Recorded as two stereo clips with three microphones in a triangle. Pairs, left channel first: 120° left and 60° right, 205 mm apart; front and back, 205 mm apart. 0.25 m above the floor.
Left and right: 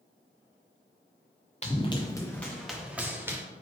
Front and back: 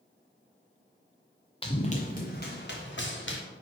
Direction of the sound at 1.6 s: 60° left.